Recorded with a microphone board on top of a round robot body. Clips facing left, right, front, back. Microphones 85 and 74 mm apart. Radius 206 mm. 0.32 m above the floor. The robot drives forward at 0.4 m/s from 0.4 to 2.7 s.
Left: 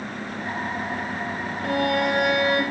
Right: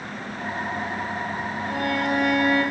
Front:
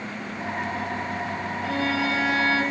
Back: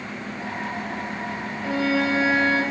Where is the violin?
95° left, 6 m; by 2.6 s 100° left, 6 m.